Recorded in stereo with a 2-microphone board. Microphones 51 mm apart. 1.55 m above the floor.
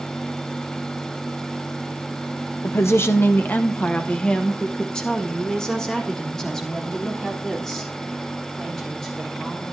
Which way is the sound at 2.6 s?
60° left (ahead or behind).